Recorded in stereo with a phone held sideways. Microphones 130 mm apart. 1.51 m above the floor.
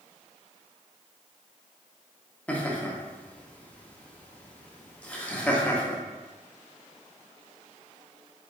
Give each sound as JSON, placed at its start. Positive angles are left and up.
{"t": 2.5, "sound": "laughter", "side_deg": 10, "distance_m": 0.8}